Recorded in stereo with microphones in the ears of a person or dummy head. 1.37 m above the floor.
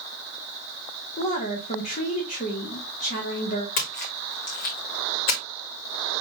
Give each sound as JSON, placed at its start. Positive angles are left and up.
{"t": 1.2, "sound": "a woman speaking", "side_deg": 35, "distance_m": 1.1}
{"t": 3.8, "sound": "a splash", "side_deg": 50, "distance_m": 1.5}